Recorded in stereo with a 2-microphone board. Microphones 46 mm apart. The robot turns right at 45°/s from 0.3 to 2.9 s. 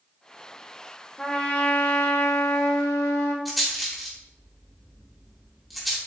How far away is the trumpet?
About 1.4 m.